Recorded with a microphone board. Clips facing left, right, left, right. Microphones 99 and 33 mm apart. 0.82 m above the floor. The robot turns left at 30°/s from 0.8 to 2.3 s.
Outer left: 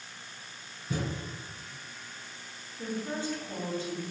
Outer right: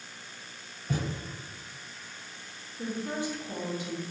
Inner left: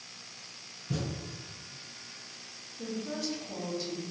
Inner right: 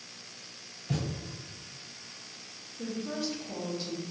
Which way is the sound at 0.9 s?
65° right (ahead or behind).